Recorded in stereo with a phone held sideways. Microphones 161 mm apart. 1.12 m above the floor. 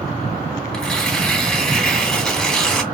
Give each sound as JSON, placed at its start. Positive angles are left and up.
{"t": 0.7, "sound": "tearing paper", "side_deg": 5, "distance_m": 1.0}